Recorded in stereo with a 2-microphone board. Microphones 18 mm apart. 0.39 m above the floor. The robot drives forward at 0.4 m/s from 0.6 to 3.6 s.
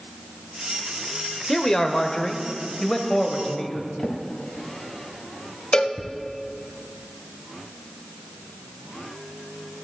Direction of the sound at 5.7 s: 50° left (ahead or behind).